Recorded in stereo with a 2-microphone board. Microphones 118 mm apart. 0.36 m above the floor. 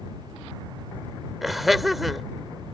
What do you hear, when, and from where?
1.4 s laughter: centre (ahead or behind)